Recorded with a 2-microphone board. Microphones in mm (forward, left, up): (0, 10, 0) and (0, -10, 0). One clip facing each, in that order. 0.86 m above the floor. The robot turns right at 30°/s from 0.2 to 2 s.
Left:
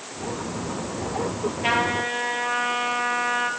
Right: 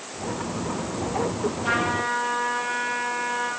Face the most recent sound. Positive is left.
turn(degrees=80)